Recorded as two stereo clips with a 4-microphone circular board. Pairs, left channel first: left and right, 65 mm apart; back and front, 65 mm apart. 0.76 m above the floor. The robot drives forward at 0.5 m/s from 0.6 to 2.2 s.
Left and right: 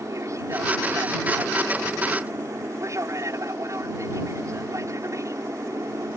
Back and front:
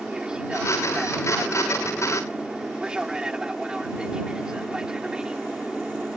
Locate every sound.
0.0 s an aircraft: 75° right